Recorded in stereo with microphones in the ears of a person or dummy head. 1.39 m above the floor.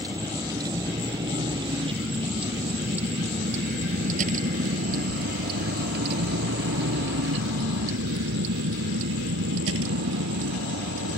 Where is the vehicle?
20° right (ahead or behind); by 11.2 s 80° right.